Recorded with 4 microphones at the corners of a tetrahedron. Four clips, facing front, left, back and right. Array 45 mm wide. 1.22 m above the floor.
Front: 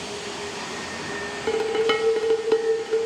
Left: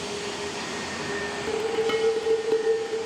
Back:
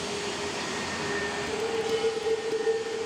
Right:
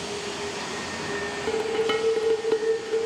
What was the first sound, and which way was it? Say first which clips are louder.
Dishes clattering: right 1 dB, front 10 dB; 10° right.